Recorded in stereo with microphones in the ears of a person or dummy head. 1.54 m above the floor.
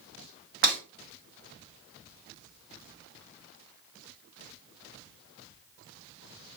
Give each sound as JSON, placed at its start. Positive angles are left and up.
{"t": 0.6, "sound": "breaking glass", "side_deg": -45, "distance_m": 1.6}